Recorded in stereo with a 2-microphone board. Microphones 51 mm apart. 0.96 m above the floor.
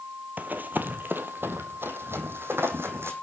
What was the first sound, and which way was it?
Running footsteps, 35° right (ahead or behind).